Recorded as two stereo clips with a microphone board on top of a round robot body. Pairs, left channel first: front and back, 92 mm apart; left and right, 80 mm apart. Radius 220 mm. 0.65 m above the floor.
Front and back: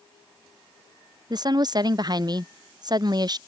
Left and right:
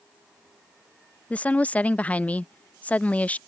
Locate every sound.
1.3 s a woman speaking: 160° left